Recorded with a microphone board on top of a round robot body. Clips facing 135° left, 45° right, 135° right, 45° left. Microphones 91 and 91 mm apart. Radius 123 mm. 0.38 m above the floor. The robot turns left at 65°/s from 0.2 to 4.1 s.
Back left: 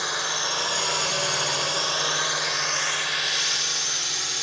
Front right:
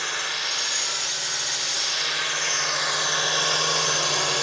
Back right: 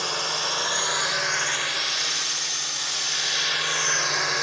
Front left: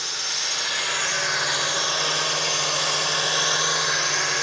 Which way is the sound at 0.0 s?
155° right.